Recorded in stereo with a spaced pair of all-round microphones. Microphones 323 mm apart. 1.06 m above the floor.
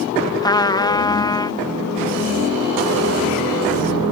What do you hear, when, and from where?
0.4 s a trumpet: 10° left (ahead or behind)